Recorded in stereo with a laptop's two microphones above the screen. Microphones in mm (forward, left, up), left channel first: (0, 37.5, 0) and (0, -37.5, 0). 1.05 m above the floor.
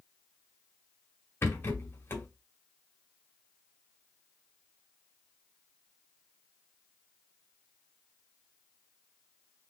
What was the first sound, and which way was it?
A rattle, 30° left (ahead or behind).